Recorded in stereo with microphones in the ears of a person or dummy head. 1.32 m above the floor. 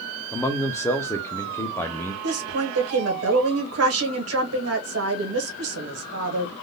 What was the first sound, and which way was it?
A man speaking, 10° left (ahead or behind).